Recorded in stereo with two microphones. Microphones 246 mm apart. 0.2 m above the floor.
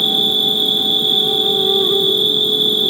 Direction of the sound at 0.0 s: Centre (ahead or behind).